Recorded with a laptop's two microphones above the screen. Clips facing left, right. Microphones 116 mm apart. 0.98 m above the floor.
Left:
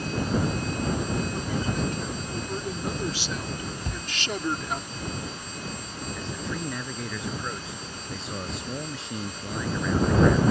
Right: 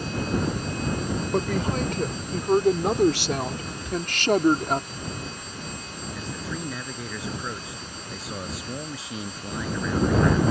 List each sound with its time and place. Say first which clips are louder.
1.3 s a woman speaking: right 4 dB; 75° right (ahead or behind); by 4.8 s 50° right (ahead or behind)
3.8 s a cupboard door: right 6 dB; 50° left (ahead or behind)
6.2 s a man speaking: even; 5° right (ahead or behind)